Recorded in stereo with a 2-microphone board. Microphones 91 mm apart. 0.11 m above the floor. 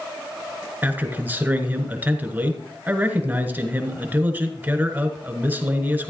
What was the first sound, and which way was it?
A man speaking, 20° right (ahead or behind).